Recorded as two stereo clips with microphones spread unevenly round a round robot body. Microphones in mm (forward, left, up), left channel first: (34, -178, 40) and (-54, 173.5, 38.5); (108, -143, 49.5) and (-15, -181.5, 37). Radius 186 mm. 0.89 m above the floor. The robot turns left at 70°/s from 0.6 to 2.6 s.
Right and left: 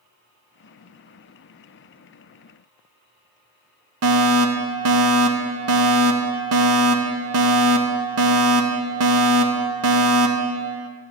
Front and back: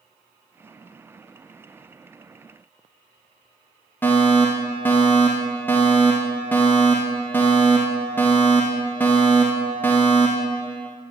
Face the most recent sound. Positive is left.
turn(degrees=95)